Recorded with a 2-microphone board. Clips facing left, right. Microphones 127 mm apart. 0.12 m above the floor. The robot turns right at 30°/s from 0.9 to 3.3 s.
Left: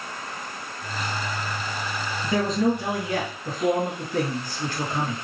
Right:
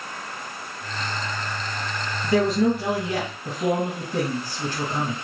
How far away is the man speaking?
About 2 m.